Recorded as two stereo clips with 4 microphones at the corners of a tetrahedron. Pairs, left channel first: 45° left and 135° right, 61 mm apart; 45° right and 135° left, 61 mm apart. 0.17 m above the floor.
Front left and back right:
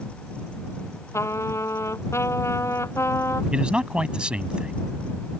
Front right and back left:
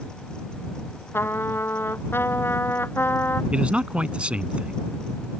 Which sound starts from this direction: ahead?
A trumpet, at 1.1 s.